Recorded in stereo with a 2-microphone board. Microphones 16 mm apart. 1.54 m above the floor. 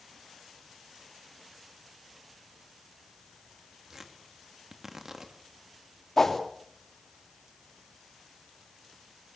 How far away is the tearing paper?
About 2.5 m.